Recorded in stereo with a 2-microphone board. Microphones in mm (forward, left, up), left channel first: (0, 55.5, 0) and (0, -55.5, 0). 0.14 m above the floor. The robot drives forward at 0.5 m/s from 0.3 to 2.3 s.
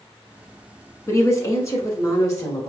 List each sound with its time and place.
1.1 s a woman speaking: 25° left (ahead or behind), 1.3 m